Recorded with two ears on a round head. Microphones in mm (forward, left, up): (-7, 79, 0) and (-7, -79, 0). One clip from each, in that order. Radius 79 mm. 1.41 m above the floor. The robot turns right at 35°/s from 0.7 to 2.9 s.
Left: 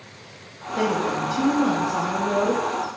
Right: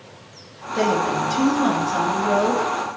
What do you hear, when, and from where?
0.8 s a woman speaking: 170° right, 2.5 m; by 2.6 s 100° right, 2.5 m